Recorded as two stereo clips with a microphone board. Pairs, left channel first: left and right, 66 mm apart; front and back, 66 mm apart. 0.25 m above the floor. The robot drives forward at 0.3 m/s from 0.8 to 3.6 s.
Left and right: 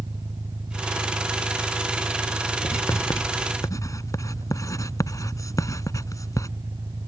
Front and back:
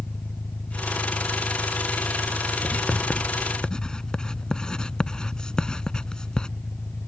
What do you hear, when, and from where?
0.0 s an engine running: 70° right
2.6 s writing: 65° left; by 6.5 s 75° left